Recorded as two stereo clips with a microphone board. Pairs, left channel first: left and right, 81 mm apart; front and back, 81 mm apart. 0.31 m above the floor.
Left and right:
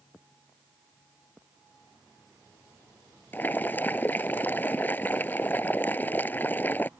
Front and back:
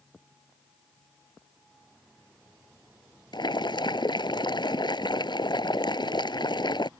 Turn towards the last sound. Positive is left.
turn(degrees=25)